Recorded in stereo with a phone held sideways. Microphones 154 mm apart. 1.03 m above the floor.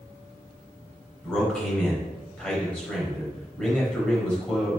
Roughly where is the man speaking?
Centre.